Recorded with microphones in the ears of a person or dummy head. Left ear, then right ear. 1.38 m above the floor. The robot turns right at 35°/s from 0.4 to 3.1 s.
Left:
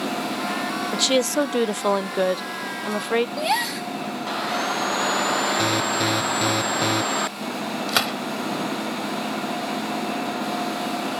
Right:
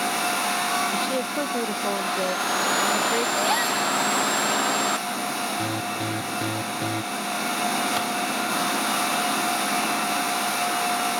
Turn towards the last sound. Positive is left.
turn(degrees=40)  # may be behind; listen again after turning